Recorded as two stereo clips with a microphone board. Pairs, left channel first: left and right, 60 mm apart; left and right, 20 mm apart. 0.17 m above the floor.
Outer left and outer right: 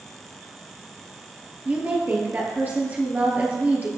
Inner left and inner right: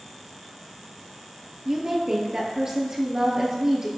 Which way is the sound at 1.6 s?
30° right (ahead or behind).